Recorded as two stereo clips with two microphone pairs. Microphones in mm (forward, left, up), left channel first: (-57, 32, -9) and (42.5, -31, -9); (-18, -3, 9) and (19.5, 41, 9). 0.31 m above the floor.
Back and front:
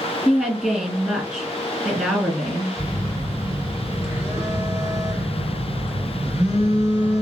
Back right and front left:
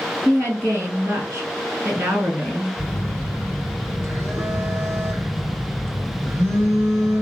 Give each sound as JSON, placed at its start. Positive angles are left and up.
{"t": 0.2, "sound": "a woman speaking", "azimuth_deg": 45, "distance_m": 1.7}
{"t": 2.8, "sound": "a phone buzzing", "azimuth_deg": 25, "distance_m": 2.0}